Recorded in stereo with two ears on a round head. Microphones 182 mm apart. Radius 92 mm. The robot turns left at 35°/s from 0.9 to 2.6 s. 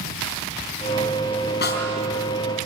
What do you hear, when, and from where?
1.6 s a snare drum: 55° left (ahead or behind), 4 m; by 1.9 s 65° left (ahead or behind), 4 m